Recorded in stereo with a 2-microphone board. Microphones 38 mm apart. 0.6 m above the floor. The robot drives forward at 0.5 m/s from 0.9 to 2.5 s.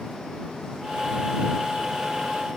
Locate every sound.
Only background noise.